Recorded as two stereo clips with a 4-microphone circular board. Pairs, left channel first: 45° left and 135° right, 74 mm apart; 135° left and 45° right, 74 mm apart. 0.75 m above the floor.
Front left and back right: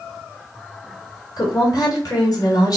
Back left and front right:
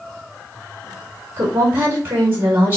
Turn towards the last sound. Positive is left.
turn(degrees=15)